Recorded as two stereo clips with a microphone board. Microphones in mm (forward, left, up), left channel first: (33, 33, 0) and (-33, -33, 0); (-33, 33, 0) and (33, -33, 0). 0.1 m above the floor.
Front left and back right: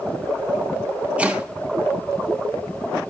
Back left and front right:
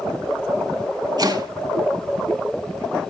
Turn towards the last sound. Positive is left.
turn(degrees=-65)